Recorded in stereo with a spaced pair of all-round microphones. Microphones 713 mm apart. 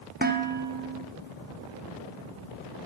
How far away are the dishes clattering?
About 0.6 m.